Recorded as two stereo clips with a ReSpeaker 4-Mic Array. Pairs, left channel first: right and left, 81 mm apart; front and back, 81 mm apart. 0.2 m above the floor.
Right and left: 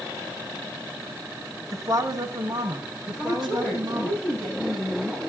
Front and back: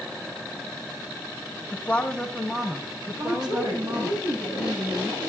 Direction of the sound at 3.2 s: Straight behind.